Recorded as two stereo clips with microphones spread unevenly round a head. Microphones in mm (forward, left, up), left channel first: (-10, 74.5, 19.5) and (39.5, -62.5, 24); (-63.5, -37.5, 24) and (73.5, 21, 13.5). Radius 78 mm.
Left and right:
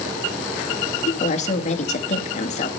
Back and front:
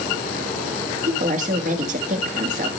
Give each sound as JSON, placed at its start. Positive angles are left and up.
{"t": 1.1, "sound": "a woman speaking", "azimuth_deg": 65, "distance_m": 1.4}